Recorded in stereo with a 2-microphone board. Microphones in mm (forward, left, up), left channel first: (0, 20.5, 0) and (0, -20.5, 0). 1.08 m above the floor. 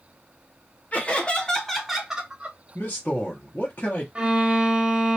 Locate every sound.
0.9 s laughter: 35° left (ahead or behind), 0.8 m; by 2.6 s 30° right (ahead or behind), 0.8 m
2.8 s a man speaking: 45° left (ahead or behind), 0.8 m
4.2 s a violin: 25° right (ahead or behind), 0.6 m